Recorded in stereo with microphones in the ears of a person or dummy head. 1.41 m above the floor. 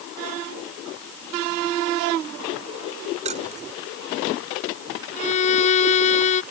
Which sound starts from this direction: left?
A violin, at 5.2 s.